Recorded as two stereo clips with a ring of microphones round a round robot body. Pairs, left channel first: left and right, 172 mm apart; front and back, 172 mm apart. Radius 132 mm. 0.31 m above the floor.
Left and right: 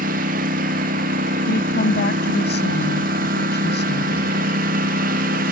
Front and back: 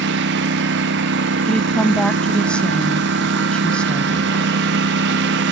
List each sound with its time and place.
0.0 s a lawn mower: 145° right
1.5 s a woman speaking: 85° left